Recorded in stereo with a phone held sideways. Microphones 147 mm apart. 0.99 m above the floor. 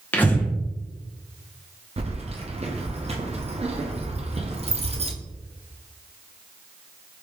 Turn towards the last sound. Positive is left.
turn(degrees=-45)  # may be behind; listen again after turning